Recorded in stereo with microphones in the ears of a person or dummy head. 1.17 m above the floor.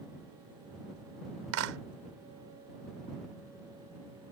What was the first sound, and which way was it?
A clap, 80° right.